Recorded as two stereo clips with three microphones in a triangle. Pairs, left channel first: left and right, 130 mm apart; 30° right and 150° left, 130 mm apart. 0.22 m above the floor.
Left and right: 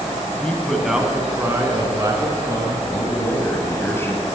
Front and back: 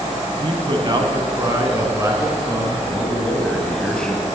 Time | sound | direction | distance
0.4 | a man speaking | 165° left | 1.3 m
2.9 | a man speaking | 45° left | 1.4 m